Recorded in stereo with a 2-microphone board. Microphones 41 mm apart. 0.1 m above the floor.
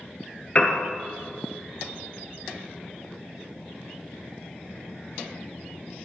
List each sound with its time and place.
0.6 s a piano: 30° left (ahead or behind), 0.5 m